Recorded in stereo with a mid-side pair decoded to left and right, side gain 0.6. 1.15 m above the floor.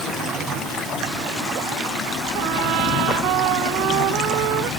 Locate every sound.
2.4 s a trumpet: 65° right